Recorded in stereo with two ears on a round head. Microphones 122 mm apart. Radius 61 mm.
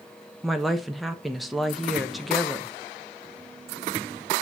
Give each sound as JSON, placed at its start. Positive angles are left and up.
{"t": 0.4, "sound": "a woman speaking", "side_deg": 0, "distance_m": 0.9}